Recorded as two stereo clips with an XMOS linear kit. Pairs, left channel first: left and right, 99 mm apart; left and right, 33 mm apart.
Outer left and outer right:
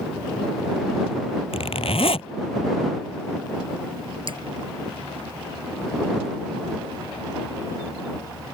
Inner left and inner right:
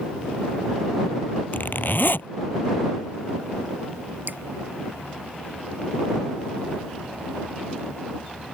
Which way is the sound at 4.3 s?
60° right (ahead or behind).